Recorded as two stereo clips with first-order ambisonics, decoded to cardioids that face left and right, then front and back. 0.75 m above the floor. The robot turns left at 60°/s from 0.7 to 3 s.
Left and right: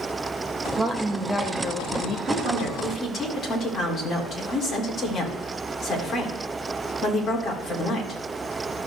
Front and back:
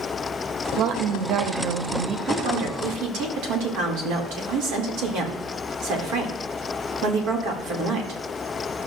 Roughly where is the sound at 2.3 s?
Behind.